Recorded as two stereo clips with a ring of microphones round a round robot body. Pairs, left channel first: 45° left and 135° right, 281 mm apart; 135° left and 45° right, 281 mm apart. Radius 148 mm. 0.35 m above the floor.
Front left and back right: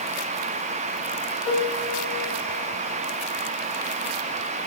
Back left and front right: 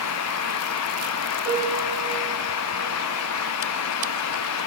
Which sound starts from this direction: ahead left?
A piano, at 1.4 s.